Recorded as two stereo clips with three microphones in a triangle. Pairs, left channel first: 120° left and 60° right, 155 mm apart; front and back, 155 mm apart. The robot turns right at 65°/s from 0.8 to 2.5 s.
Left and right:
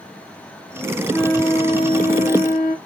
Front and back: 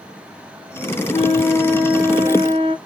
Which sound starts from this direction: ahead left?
A flute, at 1.1 s.